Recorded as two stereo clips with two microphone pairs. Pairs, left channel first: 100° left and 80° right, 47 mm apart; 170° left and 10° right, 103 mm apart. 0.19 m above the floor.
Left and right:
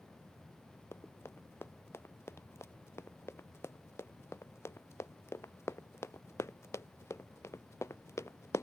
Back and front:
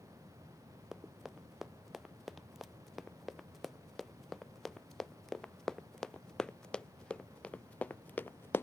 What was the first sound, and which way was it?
Running footsteps, 75° left.